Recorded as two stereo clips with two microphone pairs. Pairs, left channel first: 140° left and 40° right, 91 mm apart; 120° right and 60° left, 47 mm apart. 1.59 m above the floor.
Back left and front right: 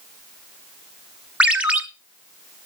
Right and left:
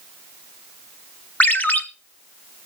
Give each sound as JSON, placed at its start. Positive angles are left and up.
{"t": 1.4, "sound": "a ringtone", "azimuth_deg": -110, "distance_m": 1.4}